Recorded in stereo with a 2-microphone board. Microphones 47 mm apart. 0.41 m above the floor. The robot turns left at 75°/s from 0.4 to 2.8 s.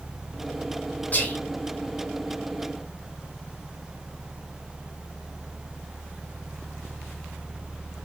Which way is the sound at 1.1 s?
35° left (ahead or behind).